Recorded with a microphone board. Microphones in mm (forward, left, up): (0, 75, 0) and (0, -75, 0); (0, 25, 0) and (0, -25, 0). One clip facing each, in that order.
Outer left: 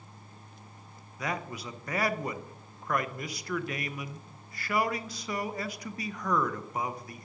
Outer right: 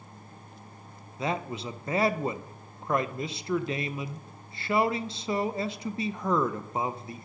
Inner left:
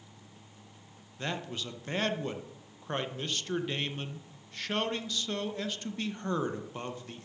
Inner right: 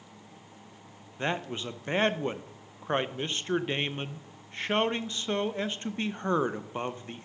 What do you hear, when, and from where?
1.2 s a man speaking: 25° right (ahead or behind), 0.5 m